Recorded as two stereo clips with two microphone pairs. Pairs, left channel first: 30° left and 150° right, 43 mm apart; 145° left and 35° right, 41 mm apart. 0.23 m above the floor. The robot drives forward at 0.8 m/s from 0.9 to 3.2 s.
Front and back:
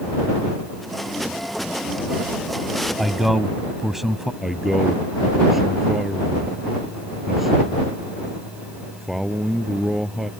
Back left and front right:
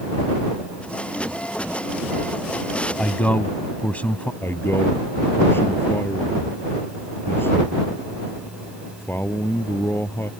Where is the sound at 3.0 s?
115° left; by 4.3 s 125° left.